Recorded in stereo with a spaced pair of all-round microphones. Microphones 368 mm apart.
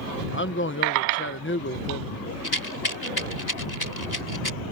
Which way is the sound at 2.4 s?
80° left.